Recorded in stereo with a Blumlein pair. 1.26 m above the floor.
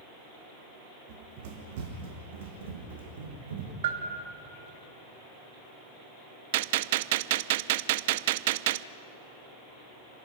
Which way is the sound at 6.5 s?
50° right.